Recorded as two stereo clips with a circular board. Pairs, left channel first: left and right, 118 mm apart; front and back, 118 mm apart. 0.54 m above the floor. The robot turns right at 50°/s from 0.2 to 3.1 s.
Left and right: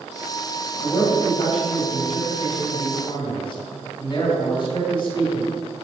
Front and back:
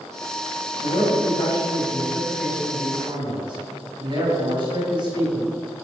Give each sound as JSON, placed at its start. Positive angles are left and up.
{"t": 0.8, "sound": "a man speaking", "azimuth_deg": 20, "distance_m": 2.5}